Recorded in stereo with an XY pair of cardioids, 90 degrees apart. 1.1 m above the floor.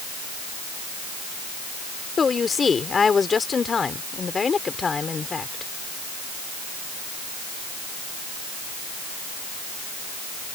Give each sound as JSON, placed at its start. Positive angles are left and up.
{"t": 2.2, "sound": "a woman speaking", "azimuth_deg": 40}